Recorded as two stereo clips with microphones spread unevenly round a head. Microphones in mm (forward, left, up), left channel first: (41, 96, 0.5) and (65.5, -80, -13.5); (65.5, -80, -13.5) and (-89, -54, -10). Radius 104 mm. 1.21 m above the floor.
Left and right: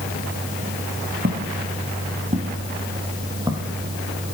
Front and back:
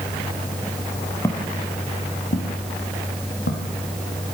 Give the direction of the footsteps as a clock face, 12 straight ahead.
3 o'clock.